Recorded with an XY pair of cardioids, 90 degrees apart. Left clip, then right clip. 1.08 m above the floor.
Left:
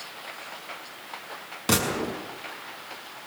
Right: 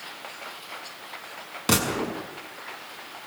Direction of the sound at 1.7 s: 20° right.